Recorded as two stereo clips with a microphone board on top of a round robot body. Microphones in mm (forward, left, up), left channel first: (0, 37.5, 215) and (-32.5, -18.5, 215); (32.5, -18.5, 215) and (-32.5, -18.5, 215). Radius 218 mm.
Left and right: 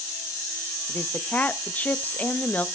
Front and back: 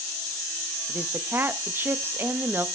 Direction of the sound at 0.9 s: 125° left.